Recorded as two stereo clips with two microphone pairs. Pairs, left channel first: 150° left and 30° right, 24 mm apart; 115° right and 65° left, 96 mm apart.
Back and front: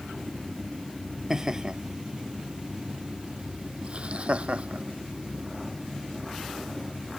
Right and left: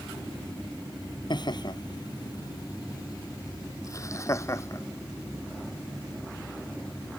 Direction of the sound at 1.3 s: 95° right.